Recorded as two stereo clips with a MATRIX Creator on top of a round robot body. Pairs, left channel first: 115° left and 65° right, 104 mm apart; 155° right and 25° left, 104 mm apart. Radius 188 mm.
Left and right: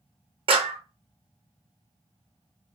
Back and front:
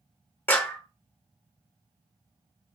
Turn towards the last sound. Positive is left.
turn(degrees=-90)